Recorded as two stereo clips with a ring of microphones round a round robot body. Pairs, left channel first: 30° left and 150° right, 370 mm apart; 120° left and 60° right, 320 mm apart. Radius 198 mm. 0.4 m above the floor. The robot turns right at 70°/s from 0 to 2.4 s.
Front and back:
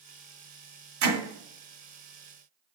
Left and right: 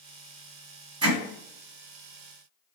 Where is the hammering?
135° right, 1.8 m; by 1.2 s 125° right, 1.8 m.